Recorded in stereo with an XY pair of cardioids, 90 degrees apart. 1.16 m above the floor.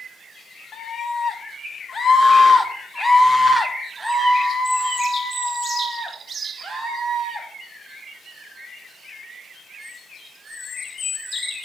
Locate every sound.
0.7 s a scream: 65° left, 2.0 m; by 7.5 s 50° right, 2.5 m